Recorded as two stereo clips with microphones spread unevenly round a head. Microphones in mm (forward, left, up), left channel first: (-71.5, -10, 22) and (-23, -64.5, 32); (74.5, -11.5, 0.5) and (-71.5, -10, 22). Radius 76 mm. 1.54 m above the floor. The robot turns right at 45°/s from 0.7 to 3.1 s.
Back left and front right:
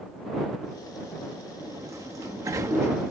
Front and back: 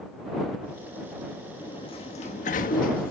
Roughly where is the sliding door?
Ahead right.